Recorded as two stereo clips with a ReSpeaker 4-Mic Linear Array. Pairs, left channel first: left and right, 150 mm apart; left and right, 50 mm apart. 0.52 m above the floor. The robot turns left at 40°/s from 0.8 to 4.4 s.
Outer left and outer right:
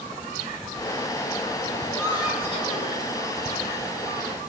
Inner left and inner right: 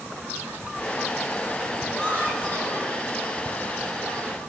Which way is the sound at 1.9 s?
160° left.